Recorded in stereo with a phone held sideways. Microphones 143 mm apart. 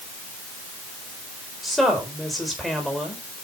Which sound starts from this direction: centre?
A woman speaking, at 1.6 s.